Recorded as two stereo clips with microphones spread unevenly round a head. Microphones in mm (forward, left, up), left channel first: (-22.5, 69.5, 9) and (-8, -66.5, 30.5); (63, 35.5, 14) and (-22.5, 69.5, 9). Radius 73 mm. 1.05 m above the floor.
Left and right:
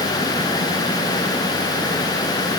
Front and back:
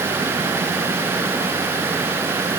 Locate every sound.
Only background noise.